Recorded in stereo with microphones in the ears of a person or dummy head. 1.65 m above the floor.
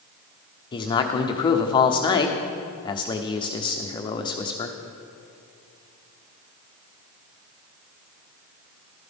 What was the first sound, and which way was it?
A man speaking, 20° left (ahead or behind).